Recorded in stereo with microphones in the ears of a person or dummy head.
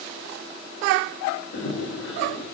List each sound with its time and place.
1.5 s running footsteps: 65° left (ahead or behind), 4 m